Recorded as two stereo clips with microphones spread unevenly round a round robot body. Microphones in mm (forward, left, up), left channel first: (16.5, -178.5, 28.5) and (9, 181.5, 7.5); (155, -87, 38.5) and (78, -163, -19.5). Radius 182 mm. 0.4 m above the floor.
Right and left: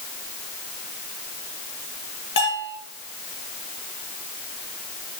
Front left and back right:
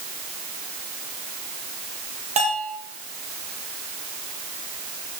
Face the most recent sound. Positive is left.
turn(degrees=-145)